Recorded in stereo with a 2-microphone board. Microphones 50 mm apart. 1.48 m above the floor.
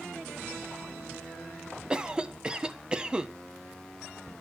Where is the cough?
20° right (ahead or behind), 1.3 m.